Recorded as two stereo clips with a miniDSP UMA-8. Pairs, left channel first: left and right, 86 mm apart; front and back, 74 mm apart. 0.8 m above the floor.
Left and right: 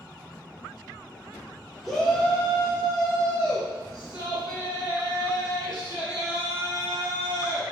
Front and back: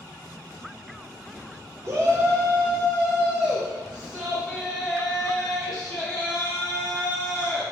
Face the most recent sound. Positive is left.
turn(degrees=60)